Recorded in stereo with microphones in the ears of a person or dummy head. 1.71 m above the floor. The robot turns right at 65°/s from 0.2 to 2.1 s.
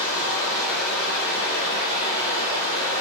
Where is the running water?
110° left, 2.0 m; by 3.0 s 125° right, 2.0 m.